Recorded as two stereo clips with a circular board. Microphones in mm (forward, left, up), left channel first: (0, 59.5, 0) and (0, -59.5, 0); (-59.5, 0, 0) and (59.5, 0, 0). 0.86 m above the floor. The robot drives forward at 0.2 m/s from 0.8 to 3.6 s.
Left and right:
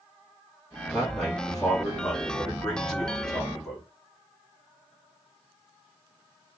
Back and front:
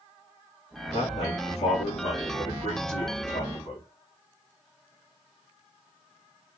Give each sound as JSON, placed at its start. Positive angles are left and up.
{"t": 0.9, "sound": "a man speaking", "azimuth_deg": 175, "distance_m": 1.1}